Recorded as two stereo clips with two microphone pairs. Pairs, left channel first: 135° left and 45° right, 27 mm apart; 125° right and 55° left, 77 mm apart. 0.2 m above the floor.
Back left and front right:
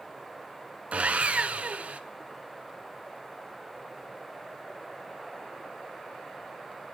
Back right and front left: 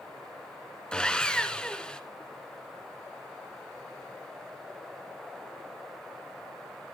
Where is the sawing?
55° right, 0.7 m.